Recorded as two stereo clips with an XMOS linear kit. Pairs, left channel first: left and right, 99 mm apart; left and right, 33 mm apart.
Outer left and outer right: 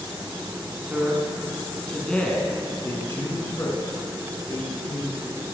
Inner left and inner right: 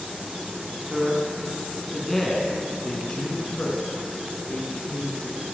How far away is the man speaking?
About 1.5 m.